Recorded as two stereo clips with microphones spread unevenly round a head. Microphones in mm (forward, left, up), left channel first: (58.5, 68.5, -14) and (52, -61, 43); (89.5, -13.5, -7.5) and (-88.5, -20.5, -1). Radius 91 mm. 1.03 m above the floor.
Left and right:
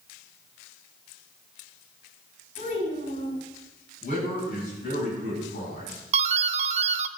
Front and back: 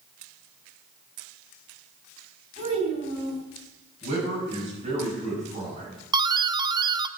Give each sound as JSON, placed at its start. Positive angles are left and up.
{"t": 2.6, "sound": "a child speaking", "azimuth_deg": 125, "distance_m": 5.5}
{"t": 4.0, "sound": "a man speaking", "azimuth_deg": 125, "distance_m": 7.0}
{"t": 6.1, "sound": "a doorbell", "azimuth_deg": -130, "distance_m": 0.6}